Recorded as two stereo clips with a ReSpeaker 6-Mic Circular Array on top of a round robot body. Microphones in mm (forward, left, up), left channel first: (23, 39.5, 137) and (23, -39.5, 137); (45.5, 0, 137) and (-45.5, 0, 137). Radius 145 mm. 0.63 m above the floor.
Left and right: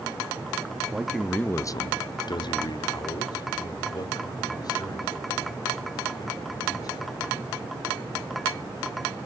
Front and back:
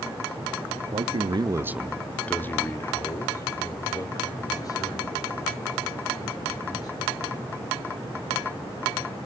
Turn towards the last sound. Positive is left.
turn(degrees=50)